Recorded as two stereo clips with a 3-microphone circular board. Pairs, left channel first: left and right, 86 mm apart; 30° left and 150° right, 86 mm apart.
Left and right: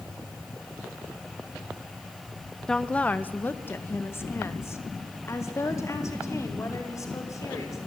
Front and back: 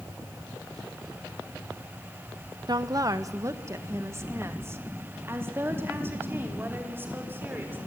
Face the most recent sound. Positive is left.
turn(degrees=145)